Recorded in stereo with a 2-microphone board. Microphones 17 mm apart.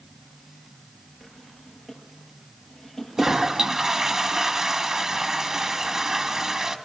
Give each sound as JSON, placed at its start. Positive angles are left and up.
{"t": 1.2, "sound": "a drawer", "side_deg": 0, "distance_m": 6.5}
{"t": 3.2, "sound": "a toilet flushing", "side_deg": -40, "distance_m": 1.3}